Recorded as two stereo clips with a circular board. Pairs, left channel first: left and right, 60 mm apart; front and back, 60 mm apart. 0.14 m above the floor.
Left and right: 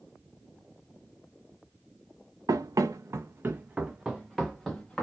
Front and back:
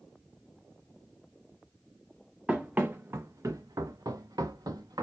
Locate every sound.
2.5 s running footsteps: 105° right, 0.7 m; by 5.0 s 170° left, 1.1 m